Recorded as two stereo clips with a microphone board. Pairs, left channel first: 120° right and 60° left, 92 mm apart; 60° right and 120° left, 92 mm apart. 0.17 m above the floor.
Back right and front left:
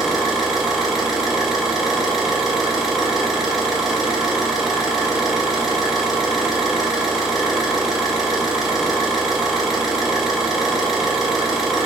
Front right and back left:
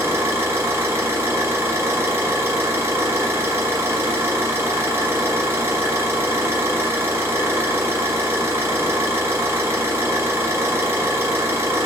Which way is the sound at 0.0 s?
140° left.